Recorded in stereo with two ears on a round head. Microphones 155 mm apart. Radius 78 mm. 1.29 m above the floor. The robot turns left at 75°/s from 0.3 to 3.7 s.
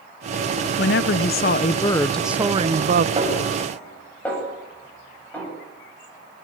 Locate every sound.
0.8 s a woman speaking: 105° left, 0.6 m; by 3.1 s 65° right, 0.6 m
3.2 s a snare drum: 30° right (ahead or behind), 9 m; by 5.5 s 10° left (ahead or behind), 9 m